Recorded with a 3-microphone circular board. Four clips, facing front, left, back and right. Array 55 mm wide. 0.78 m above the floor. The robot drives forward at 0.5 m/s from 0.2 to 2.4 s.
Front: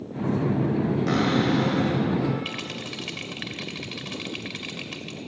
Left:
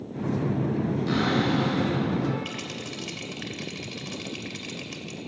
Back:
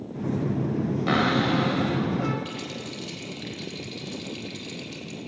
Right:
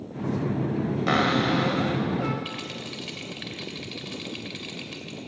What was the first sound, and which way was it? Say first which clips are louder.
A cupboard door: right 3 dB, back 2 dB; 115° right.